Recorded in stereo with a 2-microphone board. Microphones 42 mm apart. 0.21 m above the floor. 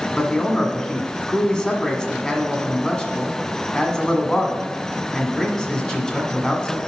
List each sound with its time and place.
0.2 s a man speaking: 15° left (ahead or behind), 1.4 m